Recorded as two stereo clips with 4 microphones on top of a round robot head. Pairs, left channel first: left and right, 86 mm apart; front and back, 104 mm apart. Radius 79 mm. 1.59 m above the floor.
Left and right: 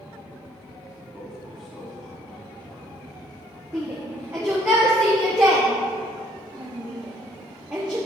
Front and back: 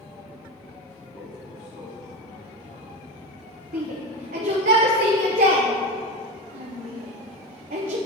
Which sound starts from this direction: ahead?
A man speaking, at 1.1 s.